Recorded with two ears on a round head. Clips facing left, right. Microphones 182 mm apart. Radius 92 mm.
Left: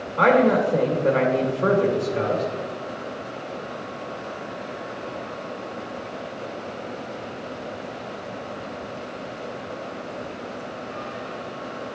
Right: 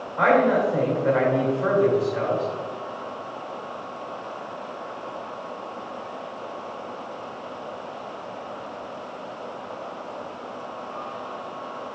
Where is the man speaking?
45° left (ahead or behind), 1.8 m.